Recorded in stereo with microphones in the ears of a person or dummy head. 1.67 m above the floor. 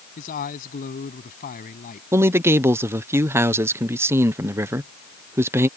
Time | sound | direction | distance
0.2 | a man speaking | 45° left (ahead or behind) | ?
2.1 | a man speaking | 20° right (ahead or behind) | ?